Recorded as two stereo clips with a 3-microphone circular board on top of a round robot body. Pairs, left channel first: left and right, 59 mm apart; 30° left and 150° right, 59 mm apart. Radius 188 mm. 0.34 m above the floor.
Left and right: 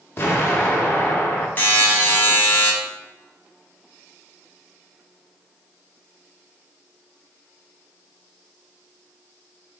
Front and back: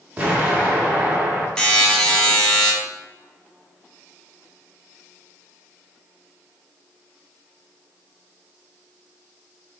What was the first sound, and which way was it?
An explosion, 140° left.